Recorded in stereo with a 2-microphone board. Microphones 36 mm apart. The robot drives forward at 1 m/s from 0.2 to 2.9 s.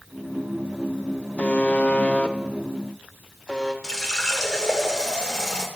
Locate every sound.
1.4 s a buzzer: 40° left (ahead or behind), 0.8 m; by 3.7 s 20° left (ahead or behind), 1.3 m
3.8 s a running tap: 20° left (ahead or behind), 1.7 m